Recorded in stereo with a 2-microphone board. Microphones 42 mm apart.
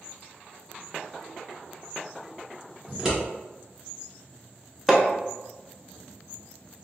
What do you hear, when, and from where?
2.9 s scissors: 15° right (ahead or behind), 1.9 m
4.9 s hammering: 5° right (ahead or behind), 0.7 m